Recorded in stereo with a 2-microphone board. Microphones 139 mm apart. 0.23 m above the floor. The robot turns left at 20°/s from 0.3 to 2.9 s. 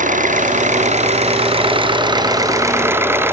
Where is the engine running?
110° right; by 3.3 s 165° right.